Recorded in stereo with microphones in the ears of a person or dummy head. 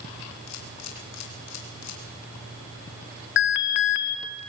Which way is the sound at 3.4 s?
55° left (ahead or behind).